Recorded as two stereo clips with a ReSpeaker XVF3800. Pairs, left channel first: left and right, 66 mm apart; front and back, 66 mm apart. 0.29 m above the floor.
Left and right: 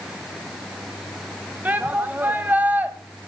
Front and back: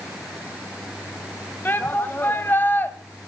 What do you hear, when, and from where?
1.6 s a shout: 40° right, 1.7 m